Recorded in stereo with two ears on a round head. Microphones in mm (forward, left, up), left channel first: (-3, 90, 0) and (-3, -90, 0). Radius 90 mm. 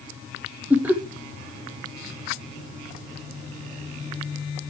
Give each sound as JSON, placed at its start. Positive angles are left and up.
{"t": 0.7, "sound": "laughter", "side_deg": -10, "distance_m": 1.0}